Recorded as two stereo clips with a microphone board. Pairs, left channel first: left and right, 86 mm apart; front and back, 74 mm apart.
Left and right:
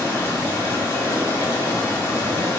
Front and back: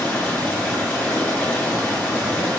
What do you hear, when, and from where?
0.0 s running water: 55° left, 1.0 m